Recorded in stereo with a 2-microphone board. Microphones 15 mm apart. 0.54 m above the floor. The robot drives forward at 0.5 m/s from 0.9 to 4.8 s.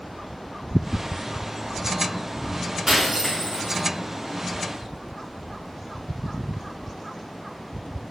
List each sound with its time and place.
2.9 s breaking glass: 40° right (ahead or behind), 4 m; by 3.8 s 35° right (ahead or behind), 4.5 m